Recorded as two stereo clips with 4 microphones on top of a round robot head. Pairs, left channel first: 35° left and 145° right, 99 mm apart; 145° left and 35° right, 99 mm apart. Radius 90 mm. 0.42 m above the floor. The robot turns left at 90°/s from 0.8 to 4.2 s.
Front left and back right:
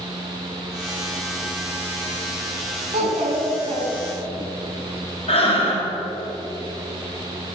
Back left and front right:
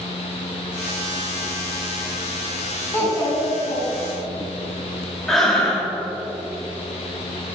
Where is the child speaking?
140° right, 3 m; by 4.5 s 105° left, 3 m.